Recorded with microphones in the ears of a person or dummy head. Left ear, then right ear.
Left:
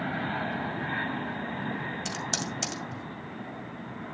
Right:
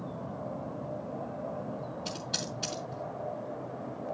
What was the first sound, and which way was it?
Typing on a keyboard, 55° left (ahead or behind).